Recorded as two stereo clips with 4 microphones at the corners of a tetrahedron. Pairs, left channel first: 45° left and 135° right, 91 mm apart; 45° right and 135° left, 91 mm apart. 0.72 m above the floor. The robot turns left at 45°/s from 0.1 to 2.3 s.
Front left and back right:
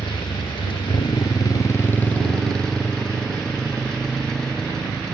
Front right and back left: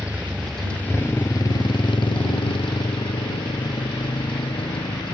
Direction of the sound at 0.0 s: 60° left.